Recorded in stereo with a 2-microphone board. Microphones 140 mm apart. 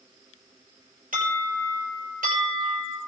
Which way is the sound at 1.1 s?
80° right.